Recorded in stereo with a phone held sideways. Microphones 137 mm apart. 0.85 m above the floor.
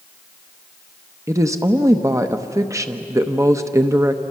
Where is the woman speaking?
20° right (ahead or behind), 1.0 m.